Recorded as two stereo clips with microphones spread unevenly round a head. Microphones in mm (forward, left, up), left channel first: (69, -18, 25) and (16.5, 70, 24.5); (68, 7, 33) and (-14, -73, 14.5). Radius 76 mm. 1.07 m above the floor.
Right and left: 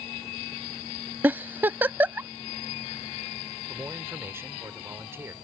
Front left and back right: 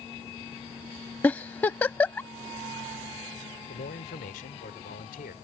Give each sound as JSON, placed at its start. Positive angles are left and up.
{"t": 1.2, "sound": "a giggle", "azimuth_deg": 75}
{"t": 3.7, "sound": "a man speaking", "azimuth_deg": 55}